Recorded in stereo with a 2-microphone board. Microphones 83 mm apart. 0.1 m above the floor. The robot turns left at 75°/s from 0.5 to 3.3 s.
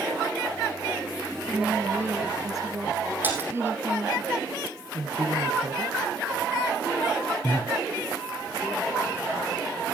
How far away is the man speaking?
About 3.5 m.